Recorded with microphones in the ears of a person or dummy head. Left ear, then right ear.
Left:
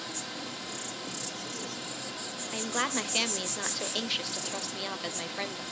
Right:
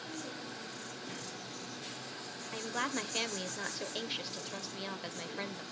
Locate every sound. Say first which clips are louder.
0.0 s an insect: left 5 dB; 65° left (ahead or behind), 1.6 m
2.5 s a woman speaking: left 5 dB; 20° left (ahead or behind), 0.6 m